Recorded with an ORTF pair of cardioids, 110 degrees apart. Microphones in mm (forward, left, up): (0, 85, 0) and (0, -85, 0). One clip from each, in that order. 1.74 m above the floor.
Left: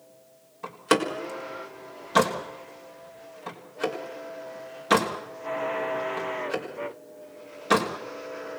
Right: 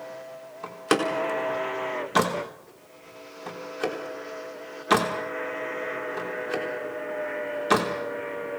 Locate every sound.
0.6 s a door slam: straight ahead, 4 m